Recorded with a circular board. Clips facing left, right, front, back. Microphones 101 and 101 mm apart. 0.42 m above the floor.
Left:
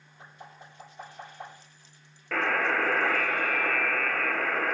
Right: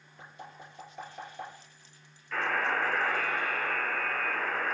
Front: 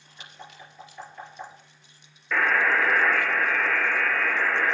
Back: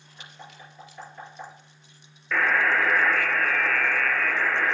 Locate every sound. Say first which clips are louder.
0.2 s knocking: right 1 dB, even; 105° right, 4.5 m
2.3 s a buzzer: left 3 dB, even; 90° left, 1.1 m